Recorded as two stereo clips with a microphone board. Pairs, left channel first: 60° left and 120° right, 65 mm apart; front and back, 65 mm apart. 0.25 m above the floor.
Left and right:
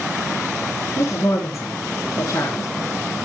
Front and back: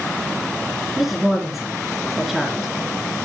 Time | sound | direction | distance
1.0 | a woman speaking | 90° left | 3 m